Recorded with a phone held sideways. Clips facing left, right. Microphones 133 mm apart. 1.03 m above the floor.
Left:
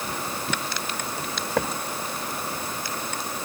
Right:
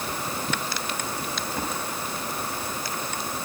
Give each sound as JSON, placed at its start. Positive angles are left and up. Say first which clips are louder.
{"t": 1.2, "sound": "footsteps", "louder": "left 3 dB", "side_deg": 70, "distance_m": 3.5}